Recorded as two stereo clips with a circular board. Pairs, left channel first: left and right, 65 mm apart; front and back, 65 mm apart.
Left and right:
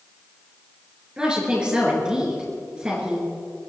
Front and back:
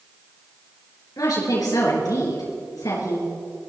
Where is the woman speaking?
15° right, 4 m.